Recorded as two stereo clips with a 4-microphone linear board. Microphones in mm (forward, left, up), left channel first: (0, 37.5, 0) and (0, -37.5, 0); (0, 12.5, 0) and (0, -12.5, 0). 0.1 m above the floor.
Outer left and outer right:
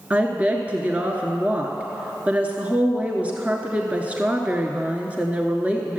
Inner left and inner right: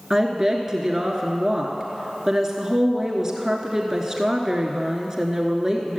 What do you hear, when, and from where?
0.1 s a woman speaking: 20° right (ahead or behind), 1.1 m